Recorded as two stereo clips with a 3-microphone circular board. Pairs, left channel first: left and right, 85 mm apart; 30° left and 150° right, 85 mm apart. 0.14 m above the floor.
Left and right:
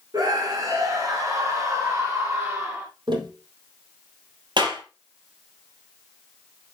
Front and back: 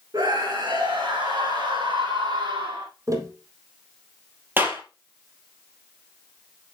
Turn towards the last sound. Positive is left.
turn(degrees=-85)